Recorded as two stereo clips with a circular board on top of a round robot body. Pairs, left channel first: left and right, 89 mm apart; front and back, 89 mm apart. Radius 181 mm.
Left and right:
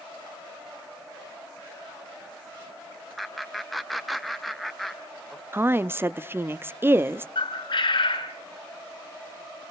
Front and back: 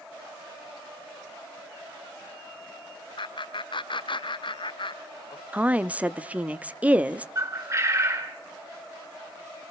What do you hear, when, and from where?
3.2 s laughter: straight ahead, 2.5 m
5.5 s a woman speaking: 120° right, 1.0 m
7.3 s a bird: 125° left, 5.5 m